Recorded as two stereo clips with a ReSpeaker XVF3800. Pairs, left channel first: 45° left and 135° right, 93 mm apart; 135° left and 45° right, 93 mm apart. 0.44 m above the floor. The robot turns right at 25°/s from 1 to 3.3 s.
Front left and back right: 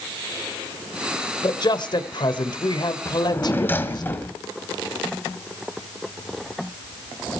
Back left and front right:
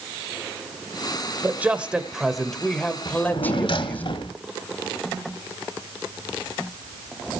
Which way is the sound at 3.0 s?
105° left.